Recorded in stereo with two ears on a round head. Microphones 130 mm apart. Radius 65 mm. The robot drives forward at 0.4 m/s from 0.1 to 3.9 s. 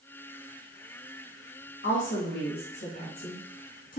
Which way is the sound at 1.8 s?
80° left.